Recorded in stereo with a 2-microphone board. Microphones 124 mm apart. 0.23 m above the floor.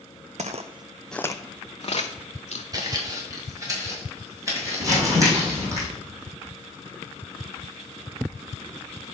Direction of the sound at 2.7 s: 30° right (ahead or behind).